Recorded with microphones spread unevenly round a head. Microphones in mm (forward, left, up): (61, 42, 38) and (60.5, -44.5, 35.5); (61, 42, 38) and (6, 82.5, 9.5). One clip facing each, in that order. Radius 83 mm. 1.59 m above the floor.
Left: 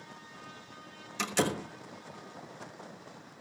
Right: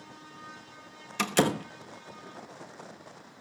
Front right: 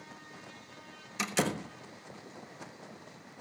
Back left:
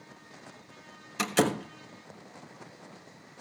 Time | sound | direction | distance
1.2 | a door slam | 140° right | 1.1 m